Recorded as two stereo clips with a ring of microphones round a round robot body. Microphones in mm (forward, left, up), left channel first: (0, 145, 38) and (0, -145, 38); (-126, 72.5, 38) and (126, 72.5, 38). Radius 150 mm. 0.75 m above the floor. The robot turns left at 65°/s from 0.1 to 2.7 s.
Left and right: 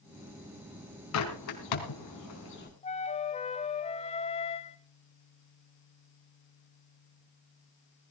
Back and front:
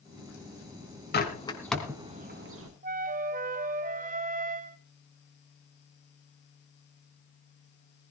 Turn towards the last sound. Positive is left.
turn(degrees=35)